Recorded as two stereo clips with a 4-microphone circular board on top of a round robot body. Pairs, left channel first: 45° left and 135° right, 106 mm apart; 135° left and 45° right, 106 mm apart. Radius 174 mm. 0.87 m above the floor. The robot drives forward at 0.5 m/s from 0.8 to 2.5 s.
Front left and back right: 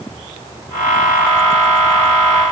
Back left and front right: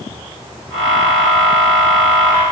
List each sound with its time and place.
Only background noise.